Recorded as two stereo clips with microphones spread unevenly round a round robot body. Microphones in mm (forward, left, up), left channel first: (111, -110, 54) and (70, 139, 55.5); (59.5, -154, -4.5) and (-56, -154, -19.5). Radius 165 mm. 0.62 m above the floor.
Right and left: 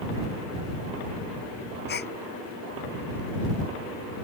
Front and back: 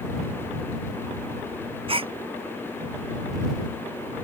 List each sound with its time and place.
1.9 s a gasp: 140° right